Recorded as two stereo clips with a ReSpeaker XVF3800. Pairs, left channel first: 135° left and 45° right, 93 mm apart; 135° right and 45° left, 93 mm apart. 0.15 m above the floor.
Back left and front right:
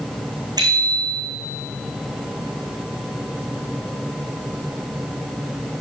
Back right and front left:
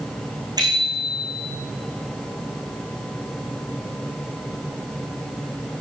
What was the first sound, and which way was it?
A bicycle bell, straight ahead.